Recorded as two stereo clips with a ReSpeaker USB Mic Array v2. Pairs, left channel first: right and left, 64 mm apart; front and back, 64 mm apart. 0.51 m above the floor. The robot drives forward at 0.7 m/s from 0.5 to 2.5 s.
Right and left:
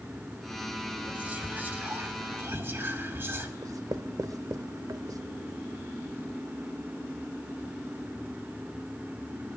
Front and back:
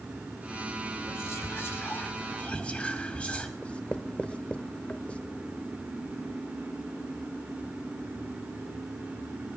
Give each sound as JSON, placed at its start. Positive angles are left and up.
{"t": 1.1, "sound": "whispering", "azimuth_deg": 30, "distance_m": 2.0}
{"t": 3.6, "sound": "writing", "azimuth_deg": 70, "distance_m": 0.6}